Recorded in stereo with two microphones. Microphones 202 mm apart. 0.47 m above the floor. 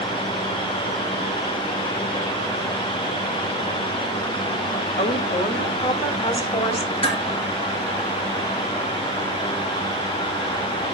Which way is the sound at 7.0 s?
25° left (ahead or behind).